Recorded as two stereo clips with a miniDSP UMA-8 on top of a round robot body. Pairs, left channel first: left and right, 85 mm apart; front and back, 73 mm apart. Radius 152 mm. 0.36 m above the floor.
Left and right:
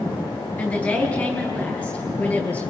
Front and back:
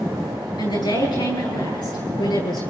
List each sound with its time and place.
0.6 s a woman speaking: 20° left, 8 m